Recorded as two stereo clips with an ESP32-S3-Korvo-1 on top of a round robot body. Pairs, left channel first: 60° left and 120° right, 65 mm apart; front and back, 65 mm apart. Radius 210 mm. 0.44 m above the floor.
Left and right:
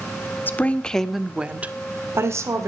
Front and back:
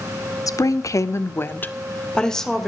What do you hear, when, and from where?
0.5 s a woman speaking: 5° left, 1.8 m; by 2.7 s 90° right, 2.5 m